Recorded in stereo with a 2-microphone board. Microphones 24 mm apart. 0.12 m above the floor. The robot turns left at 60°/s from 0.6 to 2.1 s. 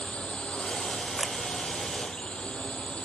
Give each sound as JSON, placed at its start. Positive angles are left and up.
{"t": 0.0, "sound": "a drone", "side_deg": 50}
{"t": 1.2, "sound": "a camera shutter", "side_deg": -10}